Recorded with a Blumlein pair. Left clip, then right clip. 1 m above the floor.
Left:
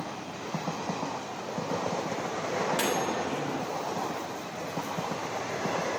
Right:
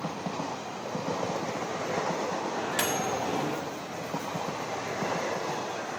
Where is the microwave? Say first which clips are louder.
Left 4 dB; 15° right, 1.8 m.